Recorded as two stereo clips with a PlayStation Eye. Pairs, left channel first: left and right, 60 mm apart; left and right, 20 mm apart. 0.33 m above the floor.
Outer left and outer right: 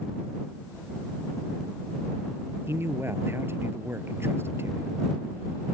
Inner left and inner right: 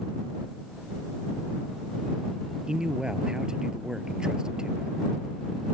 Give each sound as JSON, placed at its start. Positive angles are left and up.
{"t": 2.7, "sound": "a man speaking", "side_deg": -45}